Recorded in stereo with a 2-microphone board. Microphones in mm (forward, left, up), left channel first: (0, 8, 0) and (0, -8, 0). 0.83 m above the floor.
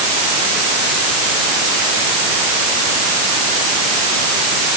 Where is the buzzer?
I don't hear a buzzer.